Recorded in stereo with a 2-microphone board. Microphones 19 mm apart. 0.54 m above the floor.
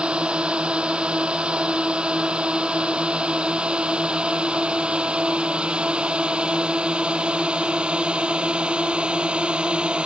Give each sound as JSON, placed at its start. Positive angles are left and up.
{"t": 0.0, "sound": "a drone", "side_deg": -60}